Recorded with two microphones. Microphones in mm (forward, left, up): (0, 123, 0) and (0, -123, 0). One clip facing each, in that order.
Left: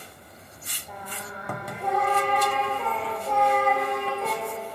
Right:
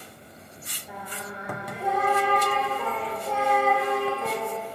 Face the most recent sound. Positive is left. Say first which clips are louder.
# right 1 dB
turn(degrees=-5)  # may be behind; listen again after turning